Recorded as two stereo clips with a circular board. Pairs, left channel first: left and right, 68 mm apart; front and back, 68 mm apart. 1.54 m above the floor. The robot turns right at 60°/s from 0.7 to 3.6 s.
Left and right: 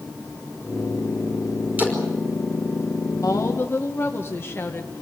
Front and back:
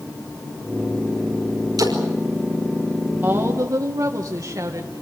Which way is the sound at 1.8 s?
155° right.